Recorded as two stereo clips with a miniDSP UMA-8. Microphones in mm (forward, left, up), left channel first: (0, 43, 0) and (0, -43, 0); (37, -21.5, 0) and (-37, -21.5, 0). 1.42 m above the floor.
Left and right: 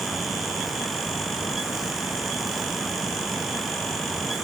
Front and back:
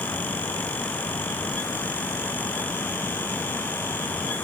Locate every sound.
Only background noise.